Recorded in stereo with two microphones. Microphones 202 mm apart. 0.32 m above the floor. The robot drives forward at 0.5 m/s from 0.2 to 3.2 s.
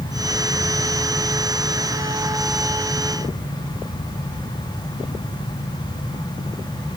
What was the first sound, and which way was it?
Only background noise.